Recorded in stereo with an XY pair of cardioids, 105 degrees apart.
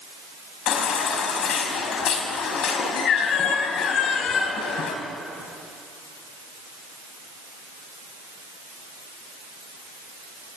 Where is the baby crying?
70° left, 3.5 m.